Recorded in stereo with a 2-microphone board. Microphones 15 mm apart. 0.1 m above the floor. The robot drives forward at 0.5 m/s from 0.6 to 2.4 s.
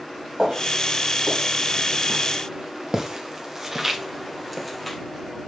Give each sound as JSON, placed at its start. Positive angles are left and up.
{"t": 0.4, "sound": "footsteps", "side_deg": -45, "distance_m": 4.5}